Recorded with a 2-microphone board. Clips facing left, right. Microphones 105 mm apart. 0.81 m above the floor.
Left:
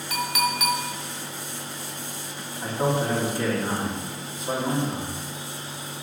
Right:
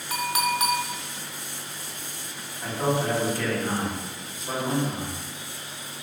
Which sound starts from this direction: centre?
A man speaking, at 2.6 s.